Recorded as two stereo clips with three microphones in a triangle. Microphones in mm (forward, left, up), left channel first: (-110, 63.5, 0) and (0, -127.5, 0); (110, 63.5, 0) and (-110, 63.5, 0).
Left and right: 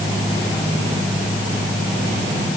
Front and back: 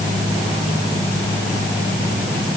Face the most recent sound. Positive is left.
No sound to turn to.